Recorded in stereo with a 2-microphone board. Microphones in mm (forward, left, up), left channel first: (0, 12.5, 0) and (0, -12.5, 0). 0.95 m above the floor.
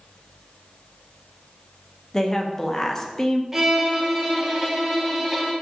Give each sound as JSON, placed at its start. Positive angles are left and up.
{"t": 2.1, "sound": "a woman speaking", "side_deg": 20, "distance_m": 0.5}
{"t": 3.5, "sound": "a violin", "side_deg": -10, "distance_m": 0.9}